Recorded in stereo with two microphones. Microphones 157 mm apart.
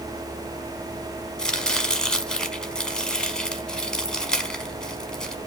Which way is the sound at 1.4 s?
5° left (ahead or behind).